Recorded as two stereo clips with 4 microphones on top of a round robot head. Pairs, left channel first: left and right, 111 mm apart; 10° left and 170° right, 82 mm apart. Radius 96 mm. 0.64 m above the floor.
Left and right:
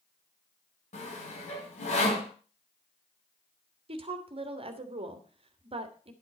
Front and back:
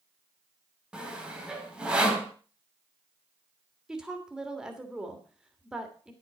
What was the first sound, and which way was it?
Sawing, 110° left.